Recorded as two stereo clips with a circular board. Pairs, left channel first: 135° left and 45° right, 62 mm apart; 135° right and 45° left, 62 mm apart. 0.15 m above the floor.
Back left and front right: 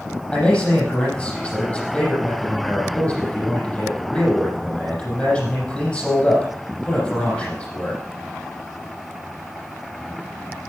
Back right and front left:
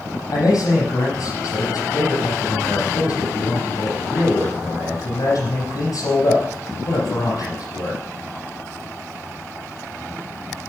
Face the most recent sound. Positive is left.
turn(degrees=-150)